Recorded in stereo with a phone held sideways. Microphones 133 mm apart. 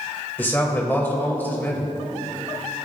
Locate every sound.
0.4 s a man speaking: 15° left (ahead or behind), 1.9 m